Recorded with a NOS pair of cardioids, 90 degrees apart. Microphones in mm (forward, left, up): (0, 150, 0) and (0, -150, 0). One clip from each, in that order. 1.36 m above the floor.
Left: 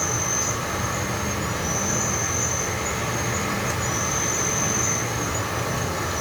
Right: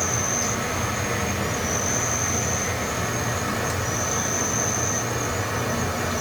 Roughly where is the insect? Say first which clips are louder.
Even; ahead.